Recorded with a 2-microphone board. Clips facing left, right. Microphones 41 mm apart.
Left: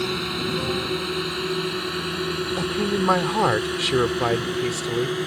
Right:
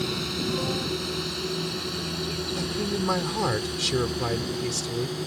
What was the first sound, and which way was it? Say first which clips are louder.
A drone: left 3 dB; 25° left (ahead or behind).